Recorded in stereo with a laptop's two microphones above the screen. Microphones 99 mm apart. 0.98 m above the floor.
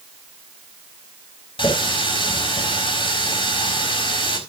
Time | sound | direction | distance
1.6 | a running tap | 65° left (ahead or behind) | 4 m